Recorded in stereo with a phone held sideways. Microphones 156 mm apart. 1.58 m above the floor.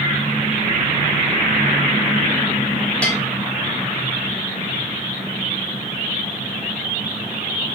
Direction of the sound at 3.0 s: 5° left (ahead or behind).